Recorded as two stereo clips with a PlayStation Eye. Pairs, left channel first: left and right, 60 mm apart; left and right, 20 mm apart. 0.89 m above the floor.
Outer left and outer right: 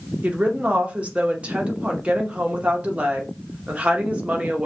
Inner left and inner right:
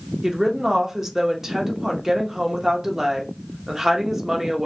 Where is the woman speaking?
20° right (ahead or behind), 0.7 m.